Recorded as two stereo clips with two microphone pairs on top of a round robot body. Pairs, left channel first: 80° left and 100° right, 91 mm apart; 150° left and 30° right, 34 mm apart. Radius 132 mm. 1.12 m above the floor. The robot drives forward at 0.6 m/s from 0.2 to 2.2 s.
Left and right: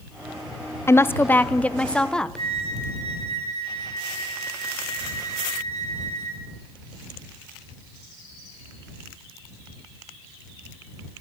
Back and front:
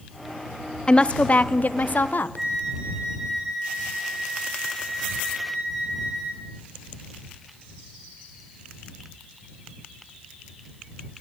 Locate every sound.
0.9 s a woman speaking: 105° left, 0.7 m; by 2.5 s 160° left, 1.1 m
2.4 s a flute: 105° right, 8 m